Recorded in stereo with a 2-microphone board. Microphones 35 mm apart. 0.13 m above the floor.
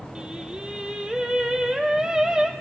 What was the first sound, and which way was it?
Singing, 25° right (ahead or behind).